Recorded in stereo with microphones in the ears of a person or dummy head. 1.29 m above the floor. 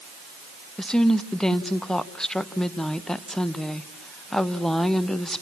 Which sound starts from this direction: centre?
A woman speaking, at 0.8 s.